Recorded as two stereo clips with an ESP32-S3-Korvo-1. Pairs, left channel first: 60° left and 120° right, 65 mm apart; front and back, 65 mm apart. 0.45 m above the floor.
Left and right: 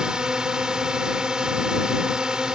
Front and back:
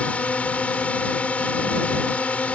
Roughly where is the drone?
Ahead right.